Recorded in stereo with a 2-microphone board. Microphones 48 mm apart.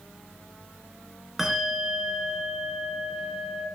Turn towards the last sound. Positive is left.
turn(degrees=-5)  # may be behind; listen again after turning